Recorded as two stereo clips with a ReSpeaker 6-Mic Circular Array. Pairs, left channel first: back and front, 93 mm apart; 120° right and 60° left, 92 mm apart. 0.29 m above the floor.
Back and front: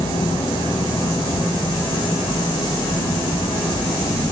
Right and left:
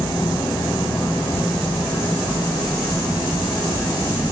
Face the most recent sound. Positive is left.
turn(degrees=-165)